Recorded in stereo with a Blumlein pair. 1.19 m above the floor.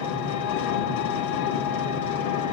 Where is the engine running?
55° left, 2 m.